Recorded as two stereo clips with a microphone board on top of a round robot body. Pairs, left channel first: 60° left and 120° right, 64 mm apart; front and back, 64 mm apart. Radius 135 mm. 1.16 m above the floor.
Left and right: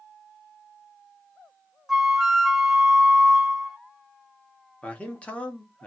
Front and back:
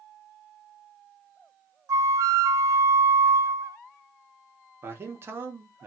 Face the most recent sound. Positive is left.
turn(degrees=130)